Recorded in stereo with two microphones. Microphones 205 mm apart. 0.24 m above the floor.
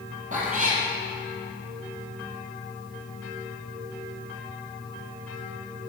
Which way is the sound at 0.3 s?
40° right (ahead or behind).